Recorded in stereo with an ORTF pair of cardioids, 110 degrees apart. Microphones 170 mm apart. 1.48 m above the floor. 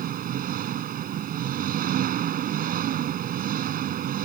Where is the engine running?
55° right.